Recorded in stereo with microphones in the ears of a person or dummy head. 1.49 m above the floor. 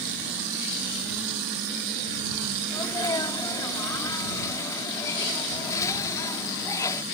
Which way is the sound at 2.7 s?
20° left (ahead or behind).